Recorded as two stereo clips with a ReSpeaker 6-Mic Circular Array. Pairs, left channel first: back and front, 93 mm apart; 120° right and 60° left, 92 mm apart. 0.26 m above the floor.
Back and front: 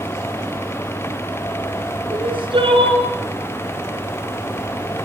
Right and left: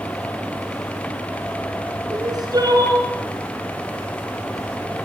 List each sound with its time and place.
2.1 s crying: 15° left, 7 m